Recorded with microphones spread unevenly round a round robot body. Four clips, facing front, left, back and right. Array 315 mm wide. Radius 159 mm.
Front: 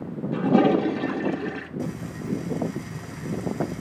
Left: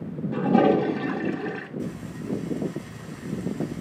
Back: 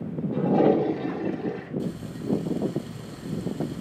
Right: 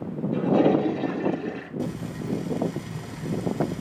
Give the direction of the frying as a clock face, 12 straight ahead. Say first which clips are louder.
Right 2 dB, front 1 dB; 2 o'clock.